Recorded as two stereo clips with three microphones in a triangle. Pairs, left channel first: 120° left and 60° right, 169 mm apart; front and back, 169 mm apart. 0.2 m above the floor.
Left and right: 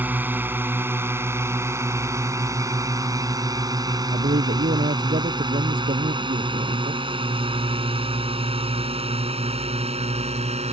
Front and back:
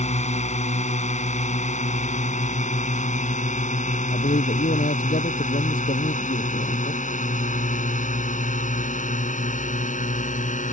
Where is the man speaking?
30° right.